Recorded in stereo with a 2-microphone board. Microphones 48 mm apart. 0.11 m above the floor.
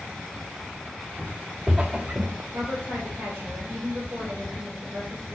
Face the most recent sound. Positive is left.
turn(degrees=-50)  # may be behind; listen again after turning